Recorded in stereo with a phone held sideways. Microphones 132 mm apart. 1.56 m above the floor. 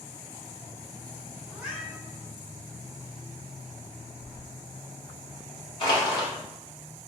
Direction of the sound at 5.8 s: 40° left (ahead or behind).